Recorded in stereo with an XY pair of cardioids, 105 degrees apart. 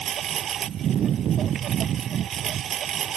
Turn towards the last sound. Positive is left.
turn(degrees=-65)